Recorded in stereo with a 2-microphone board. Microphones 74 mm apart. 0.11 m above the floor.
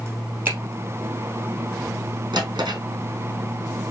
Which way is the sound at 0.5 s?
25° right (ahead or behind).